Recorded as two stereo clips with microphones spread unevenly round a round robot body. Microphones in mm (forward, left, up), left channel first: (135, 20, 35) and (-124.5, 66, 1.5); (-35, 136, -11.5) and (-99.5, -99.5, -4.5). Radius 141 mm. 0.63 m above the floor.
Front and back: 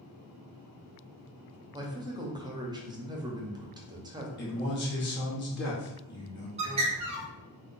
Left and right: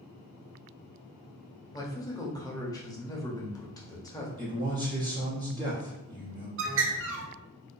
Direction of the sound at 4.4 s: 40° right.